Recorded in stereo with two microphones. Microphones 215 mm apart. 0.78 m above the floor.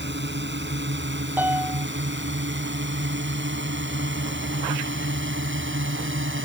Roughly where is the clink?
I don't hear a clink.